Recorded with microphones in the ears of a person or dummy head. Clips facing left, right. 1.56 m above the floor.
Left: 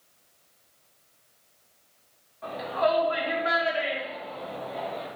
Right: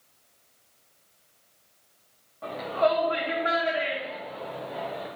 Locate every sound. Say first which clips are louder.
2.4 s a shout: right 1 dB; 50° right (ahead or behind), 2.5 m; by 5.1 s 10° right (ahead or behind), 5.5 m